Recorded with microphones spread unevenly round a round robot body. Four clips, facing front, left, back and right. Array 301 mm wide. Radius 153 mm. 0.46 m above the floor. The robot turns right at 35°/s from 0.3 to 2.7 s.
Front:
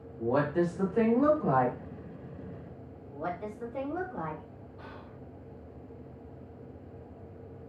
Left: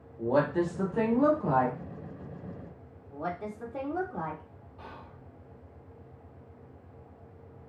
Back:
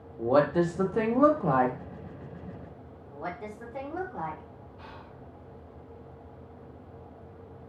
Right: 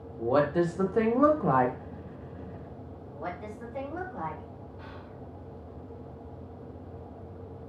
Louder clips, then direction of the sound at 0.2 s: Right 2 dB, back 4 dB; 165° right.